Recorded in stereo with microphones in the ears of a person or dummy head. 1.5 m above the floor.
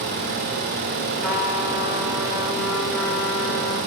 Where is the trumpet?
5° left (ahead or behind), 6 m.